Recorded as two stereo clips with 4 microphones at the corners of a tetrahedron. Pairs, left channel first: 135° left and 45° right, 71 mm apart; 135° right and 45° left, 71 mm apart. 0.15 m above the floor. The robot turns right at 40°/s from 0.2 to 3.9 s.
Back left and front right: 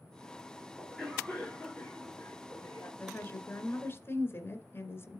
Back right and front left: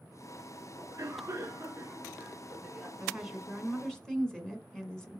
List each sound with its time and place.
0.8 s a cough: 40° left, 1.6 m; by 2.9 s 125° left, 1.6 m
3.0 s a woman speaking: 115° left, 1.7 m; by 5.2 s 150° left, 1.7 m